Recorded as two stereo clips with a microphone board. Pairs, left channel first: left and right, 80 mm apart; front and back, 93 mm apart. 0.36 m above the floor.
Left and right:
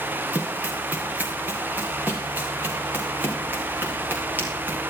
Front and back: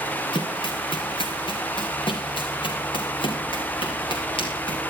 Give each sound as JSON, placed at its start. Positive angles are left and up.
{"t": 0.3, "sound": "running footsteps", "azimuth_deg": -20, "distance_m": 3.0}